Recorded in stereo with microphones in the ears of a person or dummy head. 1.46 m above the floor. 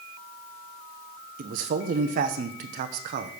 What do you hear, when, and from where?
1.4 s a man speaking: 55° right (ahead or behind), 0.6 m